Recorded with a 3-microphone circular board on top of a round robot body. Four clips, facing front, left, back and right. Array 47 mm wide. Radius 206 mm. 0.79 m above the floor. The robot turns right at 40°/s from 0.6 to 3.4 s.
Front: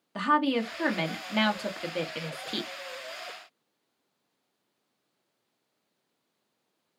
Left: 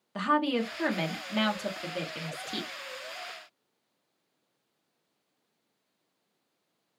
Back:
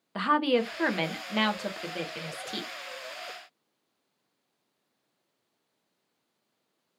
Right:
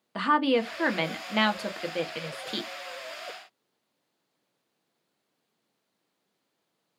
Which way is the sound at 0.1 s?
125° right.